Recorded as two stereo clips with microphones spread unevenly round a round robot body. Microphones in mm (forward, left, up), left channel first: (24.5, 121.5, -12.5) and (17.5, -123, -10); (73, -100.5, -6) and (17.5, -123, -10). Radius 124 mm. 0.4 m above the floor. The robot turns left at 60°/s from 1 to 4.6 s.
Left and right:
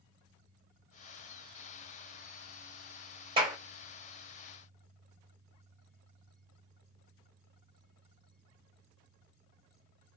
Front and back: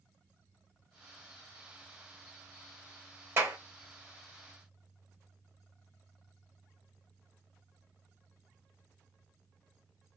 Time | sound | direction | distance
3.4 | a clap | 150° right | 0.8 m